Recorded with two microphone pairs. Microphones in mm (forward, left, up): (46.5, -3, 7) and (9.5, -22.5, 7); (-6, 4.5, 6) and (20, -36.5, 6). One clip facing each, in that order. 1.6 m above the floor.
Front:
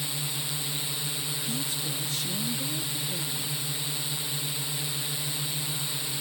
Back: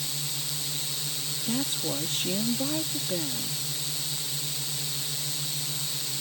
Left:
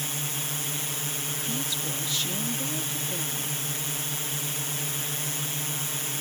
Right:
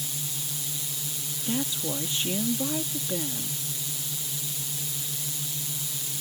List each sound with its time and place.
0.0 s a drone: 95° left
1.5 s a woman speaking: 115° right